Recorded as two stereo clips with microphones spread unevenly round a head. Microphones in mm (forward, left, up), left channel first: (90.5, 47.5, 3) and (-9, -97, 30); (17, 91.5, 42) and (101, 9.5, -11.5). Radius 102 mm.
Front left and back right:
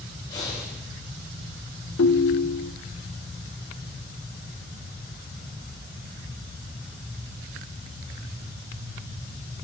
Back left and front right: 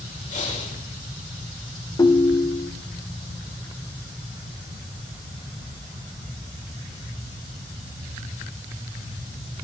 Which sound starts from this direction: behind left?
Breathing, at 0.3 s.